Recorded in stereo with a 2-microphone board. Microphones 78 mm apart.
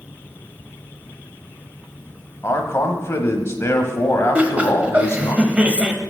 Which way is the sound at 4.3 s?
15° right (ahead or behind).